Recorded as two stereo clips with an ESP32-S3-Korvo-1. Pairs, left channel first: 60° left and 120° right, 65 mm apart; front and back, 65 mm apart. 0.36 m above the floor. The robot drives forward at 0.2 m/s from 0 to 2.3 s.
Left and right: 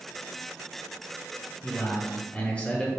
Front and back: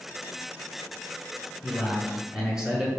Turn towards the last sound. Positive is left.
turn(degrees=115)